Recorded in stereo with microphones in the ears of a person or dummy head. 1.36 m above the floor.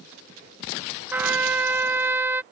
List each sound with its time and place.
1.1 s a trumpet: 10° right (ahead or behind)